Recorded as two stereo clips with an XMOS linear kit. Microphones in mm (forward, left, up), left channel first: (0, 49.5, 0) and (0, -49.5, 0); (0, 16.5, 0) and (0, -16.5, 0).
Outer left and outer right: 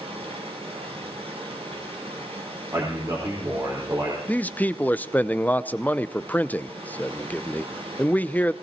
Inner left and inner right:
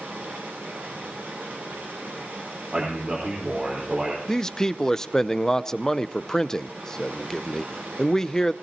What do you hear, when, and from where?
0.0 s running water: 85° right, 8.5 m
2.7 s a man speaking: 35° right (ahead or behind), 4 m
4.3 s a man speaking: 15° left (ahead or behind), 0.6 m